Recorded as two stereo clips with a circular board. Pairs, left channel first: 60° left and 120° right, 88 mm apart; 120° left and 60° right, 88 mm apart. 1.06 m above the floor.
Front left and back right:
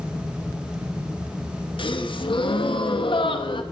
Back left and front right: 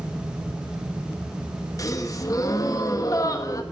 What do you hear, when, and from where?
1.8 s a gasp: 70° left, 1.3 m